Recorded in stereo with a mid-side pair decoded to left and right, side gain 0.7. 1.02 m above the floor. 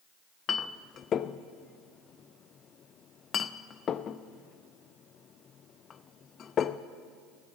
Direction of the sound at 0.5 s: 40° left.